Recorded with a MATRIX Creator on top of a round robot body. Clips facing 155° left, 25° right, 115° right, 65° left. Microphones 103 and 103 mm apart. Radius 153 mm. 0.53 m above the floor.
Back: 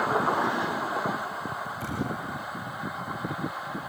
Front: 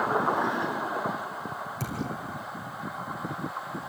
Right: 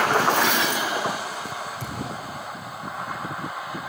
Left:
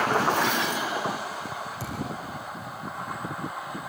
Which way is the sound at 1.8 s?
15° right.